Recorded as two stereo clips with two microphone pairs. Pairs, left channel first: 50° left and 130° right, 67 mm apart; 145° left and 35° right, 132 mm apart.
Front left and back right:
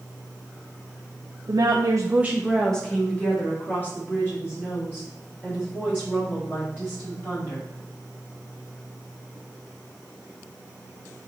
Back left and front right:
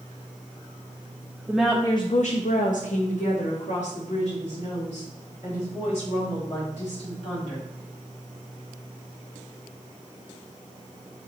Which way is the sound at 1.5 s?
115° right.